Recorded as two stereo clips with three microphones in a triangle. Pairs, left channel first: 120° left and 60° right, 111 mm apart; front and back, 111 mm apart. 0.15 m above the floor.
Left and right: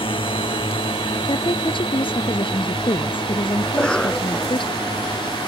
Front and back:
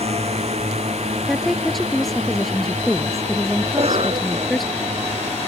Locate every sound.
0.0 s a drone: 160° left; by 5.5 s 165° left
1.3 s a woman speaking: 90° left
3.6 s a cough: 160° right